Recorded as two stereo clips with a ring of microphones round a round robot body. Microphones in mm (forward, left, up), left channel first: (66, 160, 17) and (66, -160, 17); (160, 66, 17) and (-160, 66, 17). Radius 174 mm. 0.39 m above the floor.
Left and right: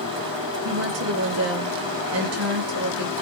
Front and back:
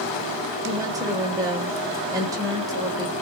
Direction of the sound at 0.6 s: 105° right.